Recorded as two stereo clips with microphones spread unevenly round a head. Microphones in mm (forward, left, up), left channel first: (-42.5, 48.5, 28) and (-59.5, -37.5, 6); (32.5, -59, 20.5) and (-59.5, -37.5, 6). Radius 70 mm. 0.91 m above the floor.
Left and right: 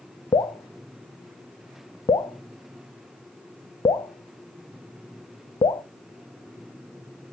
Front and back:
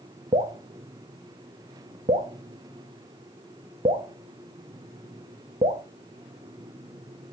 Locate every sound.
0.3 s dripping: 130° left, 0.5 m